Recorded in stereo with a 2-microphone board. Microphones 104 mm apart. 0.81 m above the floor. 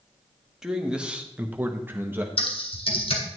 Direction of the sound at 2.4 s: 60° left (ahead or behind).